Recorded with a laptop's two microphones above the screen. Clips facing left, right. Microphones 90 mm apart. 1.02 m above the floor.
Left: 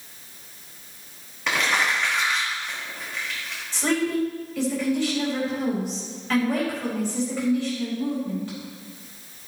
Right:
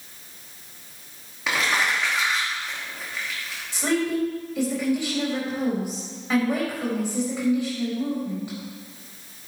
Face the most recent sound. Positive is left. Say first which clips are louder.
# even
turn(degrees=-15)  # may be behind; listen again after turning